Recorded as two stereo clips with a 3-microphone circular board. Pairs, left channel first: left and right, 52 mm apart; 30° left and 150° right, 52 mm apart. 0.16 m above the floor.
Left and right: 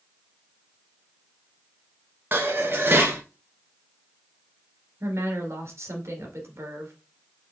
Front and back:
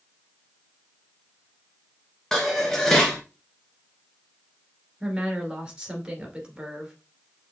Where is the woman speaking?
80° right, 2 m.